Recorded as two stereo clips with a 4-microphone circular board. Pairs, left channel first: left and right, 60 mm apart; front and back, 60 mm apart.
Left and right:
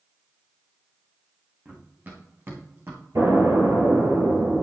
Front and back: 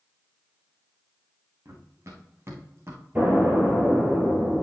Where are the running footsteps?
145° right, 3 m; by 3.0 s 135° right, 2.5 m.